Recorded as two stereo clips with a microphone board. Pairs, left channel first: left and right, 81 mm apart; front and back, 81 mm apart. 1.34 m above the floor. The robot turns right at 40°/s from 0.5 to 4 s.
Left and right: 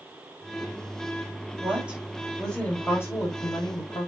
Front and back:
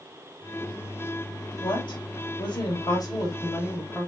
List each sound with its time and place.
1.6 s a woman speaking: 25° right, 4 m; by 4.1 s 75° left, 4 m